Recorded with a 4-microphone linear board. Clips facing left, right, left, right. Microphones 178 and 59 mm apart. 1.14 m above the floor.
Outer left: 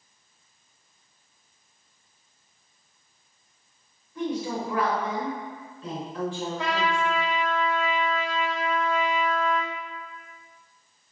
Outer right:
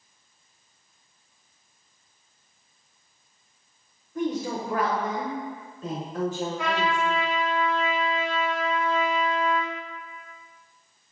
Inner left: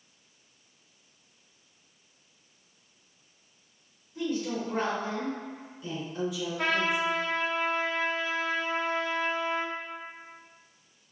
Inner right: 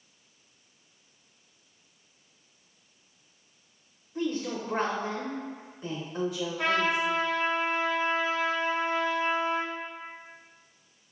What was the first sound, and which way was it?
A woman speaking, 45° right (ahead or behind).